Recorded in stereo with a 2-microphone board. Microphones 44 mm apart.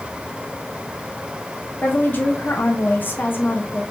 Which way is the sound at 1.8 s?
50° left (ahead or behind).